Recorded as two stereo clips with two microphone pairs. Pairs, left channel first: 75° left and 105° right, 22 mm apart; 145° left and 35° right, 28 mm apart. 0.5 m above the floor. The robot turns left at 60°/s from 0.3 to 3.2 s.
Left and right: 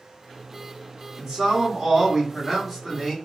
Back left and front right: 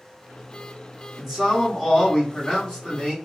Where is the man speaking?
125° right, 1.5 m; by 3.2 s 115° left, 1.5 m.